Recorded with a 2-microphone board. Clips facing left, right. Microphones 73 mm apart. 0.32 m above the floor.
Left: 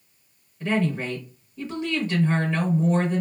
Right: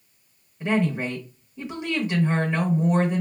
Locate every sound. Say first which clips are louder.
0.6 s a woman speaking: right 1 dB; 20° right (ahead or behind), 0.9 m